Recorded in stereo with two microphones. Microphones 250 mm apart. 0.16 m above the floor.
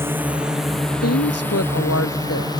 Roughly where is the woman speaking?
Left.